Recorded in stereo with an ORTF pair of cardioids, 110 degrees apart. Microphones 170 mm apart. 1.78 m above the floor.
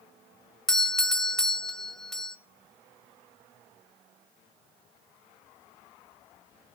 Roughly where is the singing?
No singing in this recording.